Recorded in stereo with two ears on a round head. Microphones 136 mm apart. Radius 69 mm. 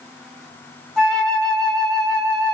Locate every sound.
1.0 s a flute: 5° left (ahead or behind), 0.8 m